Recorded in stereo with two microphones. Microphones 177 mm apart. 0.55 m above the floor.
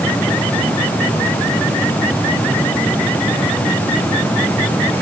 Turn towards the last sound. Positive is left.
No sound to turn to.